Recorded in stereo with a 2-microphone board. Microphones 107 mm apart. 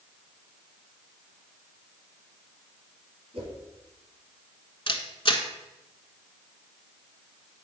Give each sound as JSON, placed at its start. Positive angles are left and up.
{"t": 3.3, "sound": "a whoosh", "side_deg": -65, "distance_m": 2.5}
{"t": 4.9, "sound": "a camera shutter", "side_deg": 50, "distance_m": 0.9}